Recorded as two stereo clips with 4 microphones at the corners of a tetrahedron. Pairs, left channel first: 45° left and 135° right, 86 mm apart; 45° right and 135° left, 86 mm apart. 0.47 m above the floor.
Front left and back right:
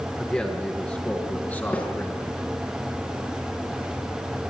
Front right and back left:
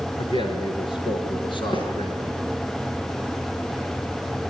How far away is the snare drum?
About 7.5 m.